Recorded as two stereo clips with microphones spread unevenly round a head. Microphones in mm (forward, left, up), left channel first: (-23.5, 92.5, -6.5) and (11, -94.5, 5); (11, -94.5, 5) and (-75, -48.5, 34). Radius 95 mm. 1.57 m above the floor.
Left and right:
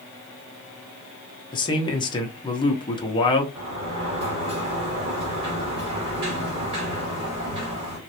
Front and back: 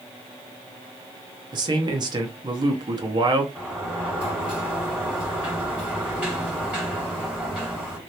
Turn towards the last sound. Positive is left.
turn(degrees=-140)